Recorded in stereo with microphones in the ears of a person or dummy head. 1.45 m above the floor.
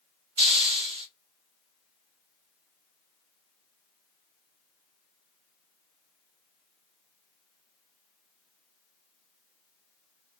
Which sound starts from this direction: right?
A hiss, at 0.4 s.